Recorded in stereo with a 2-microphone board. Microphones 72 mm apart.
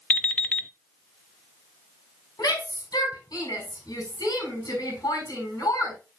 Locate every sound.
0.1 s an alarm clock: 20° left (ahead or behind), 0.6 m
2.4 s a shout: 65° left (ahead or behind), 5.5 m